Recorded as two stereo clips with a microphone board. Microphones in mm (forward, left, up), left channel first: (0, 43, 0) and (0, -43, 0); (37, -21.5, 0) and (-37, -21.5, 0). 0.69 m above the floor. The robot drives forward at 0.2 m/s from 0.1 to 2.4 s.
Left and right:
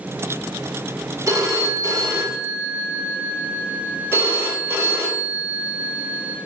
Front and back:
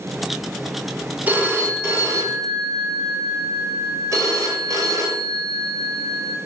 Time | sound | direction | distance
1.3 | a phone ringing | 125° right | 0.5 m